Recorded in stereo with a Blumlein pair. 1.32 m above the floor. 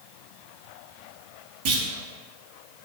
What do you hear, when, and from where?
1.6 s a clunk: 45° right, 0.5 m